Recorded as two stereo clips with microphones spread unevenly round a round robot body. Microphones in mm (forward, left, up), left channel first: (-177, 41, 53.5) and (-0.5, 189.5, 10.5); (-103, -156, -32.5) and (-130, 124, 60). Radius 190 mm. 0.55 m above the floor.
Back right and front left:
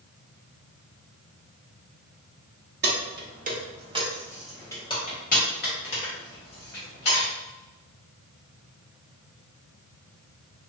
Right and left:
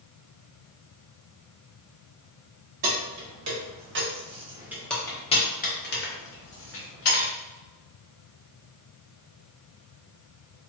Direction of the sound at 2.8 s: 60° left.